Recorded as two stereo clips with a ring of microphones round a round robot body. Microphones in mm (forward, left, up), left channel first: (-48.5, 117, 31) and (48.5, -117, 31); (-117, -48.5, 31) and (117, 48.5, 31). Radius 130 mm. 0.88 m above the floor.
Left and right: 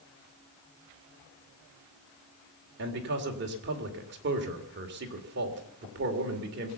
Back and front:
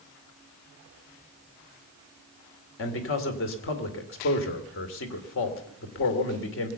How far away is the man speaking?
About 2.5 m.